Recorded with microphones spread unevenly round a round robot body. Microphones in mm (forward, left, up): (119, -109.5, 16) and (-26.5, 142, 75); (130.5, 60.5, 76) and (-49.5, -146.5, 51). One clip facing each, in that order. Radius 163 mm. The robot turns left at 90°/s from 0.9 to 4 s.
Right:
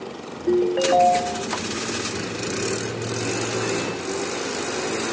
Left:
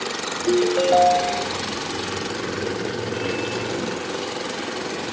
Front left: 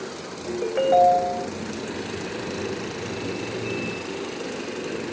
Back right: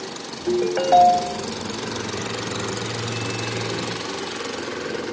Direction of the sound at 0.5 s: 155° right.